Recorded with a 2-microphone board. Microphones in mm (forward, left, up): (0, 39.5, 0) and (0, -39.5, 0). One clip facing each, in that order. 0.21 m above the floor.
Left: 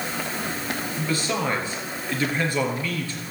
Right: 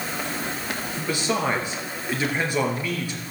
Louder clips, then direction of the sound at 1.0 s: Right 2 dB; 20° right (ahead or behind).